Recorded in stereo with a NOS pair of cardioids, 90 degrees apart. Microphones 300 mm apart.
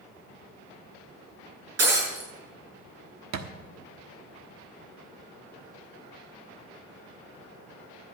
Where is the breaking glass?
55° right, 7 m.